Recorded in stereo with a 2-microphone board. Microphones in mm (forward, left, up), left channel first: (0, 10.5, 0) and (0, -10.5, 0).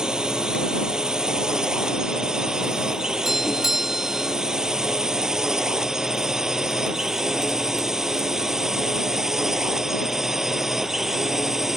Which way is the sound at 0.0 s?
35° right (ahead or behind).